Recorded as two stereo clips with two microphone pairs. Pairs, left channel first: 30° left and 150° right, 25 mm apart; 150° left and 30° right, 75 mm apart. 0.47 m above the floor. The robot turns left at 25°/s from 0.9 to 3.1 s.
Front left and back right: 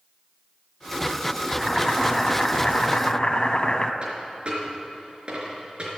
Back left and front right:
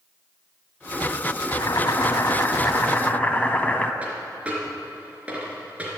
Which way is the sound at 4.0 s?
100° right.